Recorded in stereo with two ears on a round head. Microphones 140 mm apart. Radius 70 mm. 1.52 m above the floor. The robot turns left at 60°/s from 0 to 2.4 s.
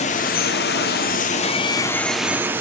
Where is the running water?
130° left, 0.7 m; by 2.6 s 15° right, 0.7 m.